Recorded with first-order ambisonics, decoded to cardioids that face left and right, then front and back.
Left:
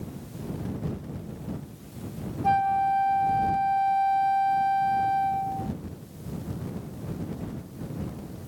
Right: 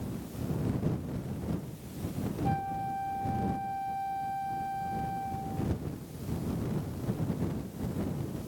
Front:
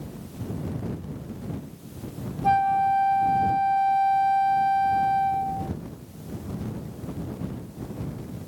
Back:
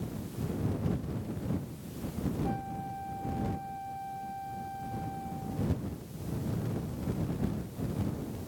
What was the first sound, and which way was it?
A flute, 40° left.